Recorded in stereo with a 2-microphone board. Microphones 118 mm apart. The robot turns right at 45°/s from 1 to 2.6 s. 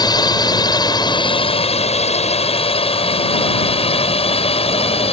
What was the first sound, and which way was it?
A drone, 35° left (ahead or behind).